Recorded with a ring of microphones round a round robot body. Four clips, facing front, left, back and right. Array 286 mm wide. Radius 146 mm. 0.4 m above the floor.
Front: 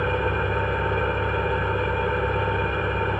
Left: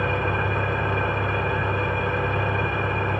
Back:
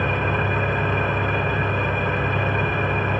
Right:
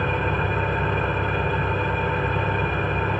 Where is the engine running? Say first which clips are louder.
Even, back 1 dB; 175° right, 2 m.